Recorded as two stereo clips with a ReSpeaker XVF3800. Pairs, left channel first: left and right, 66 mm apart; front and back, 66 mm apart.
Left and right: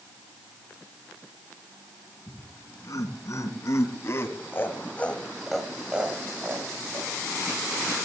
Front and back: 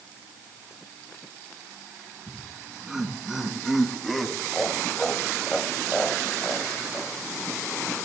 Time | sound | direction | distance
2.3 | laughter | 95° left | 3 m